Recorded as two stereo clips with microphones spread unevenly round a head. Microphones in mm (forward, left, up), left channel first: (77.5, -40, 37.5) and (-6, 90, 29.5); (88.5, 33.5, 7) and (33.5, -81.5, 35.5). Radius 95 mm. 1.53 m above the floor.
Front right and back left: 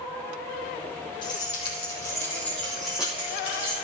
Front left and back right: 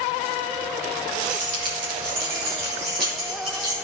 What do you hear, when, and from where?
1.2 s keys jangling: 110° right, 2.5 m; by 3.8 s 165° right, 3 m